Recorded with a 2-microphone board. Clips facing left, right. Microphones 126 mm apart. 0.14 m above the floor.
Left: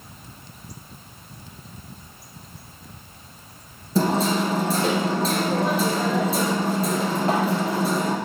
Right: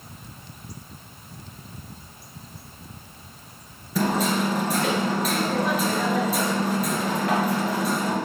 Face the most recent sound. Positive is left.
turn(degrees=30)  # may be behind; listen again after turning